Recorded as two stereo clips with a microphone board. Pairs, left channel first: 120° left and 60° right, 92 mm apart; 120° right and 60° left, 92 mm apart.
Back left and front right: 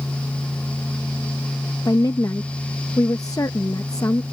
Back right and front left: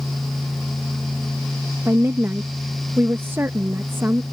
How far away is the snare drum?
I don't hear a snare drum.